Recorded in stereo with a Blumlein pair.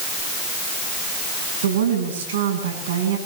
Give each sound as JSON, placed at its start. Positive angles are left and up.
{"t": 1.6, "sound": "a woman speaking", "azimuth_deg": -60, "distance_m": 10.0}